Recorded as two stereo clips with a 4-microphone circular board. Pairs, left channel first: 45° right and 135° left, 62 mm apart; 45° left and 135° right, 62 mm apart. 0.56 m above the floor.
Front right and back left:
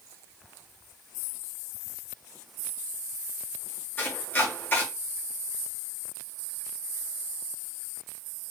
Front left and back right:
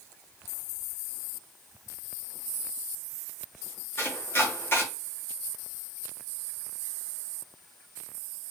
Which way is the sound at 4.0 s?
5° left.